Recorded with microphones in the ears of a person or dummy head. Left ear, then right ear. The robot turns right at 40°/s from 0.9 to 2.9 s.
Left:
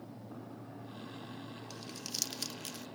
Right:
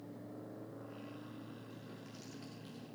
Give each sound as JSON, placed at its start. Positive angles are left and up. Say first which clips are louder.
{"t": 1.7, "sound": "crumpling", "louder": "left 10 dB", "side_deg": 75, "distance_m": 0.7}